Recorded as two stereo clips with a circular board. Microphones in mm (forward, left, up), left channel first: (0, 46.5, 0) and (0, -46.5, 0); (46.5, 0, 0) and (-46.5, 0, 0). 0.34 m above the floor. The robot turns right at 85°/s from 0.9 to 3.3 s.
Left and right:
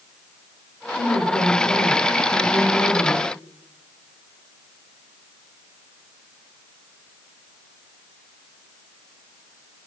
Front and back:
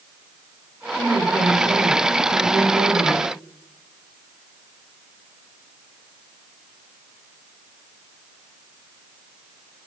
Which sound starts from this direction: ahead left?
A woman speaking, at 0.9 s.